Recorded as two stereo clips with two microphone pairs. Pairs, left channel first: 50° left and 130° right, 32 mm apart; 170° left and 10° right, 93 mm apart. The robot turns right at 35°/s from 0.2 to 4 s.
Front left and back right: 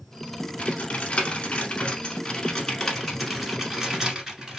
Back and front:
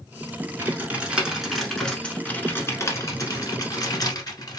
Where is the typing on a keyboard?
45° left, 1.1 m; by 4.6 s 165° left, 1.1 m.